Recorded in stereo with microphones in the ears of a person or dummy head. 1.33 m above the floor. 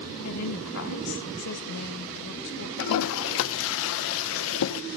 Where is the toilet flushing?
75° left (ahead or behind), 0.7 m.